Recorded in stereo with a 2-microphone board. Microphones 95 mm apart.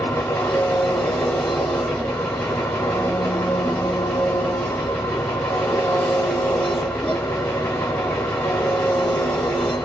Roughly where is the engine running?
Centre.